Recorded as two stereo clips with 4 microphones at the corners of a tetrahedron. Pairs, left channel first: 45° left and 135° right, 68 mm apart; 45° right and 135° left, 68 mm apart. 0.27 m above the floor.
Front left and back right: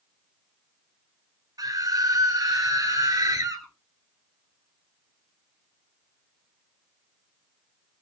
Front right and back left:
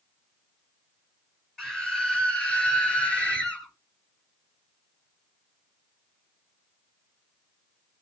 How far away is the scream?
About 5.5 m.